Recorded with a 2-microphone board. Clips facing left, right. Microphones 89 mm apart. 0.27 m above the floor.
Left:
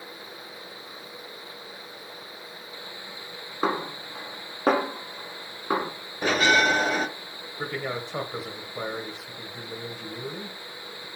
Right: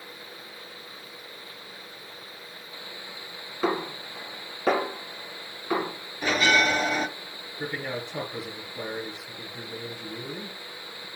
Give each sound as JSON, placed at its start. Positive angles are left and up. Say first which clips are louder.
{"t": 3.6, "sound": "a snare drum", "louder": "even", "side_deg": 40, "distance_m": 2.5}
{"t": 6.2, "sound": "a bell", "louder": "left 2 dB", "side_deg": 40, "distance_m": 1.7}
{"t": 7.6, "sound": "a man speaking", "louder": "left 1 dB", "side_deg": 65, "distance_m": 4.0}